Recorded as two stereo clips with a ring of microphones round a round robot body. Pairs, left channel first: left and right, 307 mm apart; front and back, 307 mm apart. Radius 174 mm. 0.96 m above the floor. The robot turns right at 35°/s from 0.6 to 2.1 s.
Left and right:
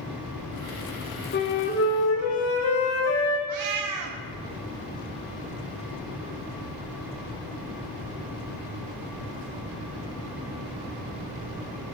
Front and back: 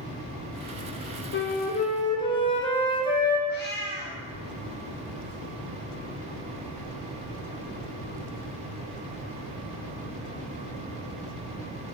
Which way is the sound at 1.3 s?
45° left.